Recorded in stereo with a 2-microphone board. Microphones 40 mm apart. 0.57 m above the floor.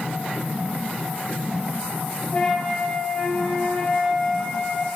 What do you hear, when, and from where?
2.3 s a flute: 30° left (ahead or behind), 6 m